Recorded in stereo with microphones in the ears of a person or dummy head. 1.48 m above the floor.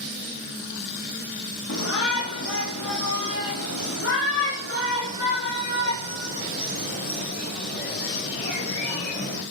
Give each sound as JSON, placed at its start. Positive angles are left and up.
{"t": 1.7, "sound": "a shout", "side_deg": 70, "distance_m": 2.5}